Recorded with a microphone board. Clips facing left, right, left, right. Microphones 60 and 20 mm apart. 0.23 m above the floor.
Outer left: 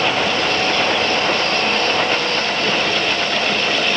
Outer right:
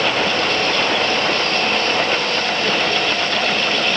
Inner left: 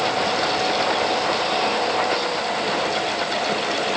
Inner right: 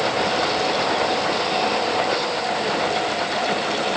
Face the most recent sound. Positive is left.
No sound to turn to.